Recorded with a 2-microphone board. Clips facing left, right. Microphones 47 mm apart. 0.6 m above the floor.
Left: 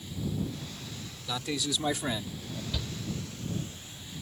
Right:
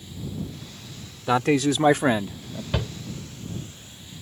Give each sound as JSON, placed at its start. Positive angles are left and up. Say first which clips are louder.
{"t": 1.3, "sound": "a man speaking", "louder": "right 12 dB", "side_deg": -60}
{"t": 2.7, "sound": "a shout", "louder": "right 12 dB", "side_deg": -60}